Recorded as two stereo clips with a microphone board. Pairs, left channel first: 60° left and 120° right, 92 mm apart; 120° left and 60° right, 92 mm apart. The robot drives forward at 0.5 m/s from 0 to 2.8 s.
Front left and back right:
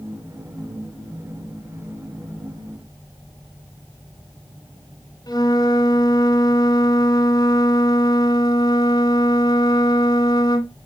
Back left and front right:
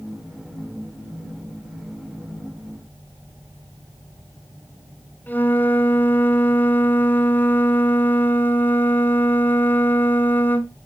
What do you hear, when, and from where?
5.3 s a flute: 55° left, 1.3 m